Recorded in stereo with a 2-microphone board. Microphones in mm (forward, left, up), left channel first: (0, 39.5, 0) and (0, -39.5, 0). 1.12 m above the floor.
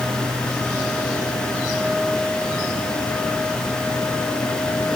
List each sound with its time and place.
Only background noise.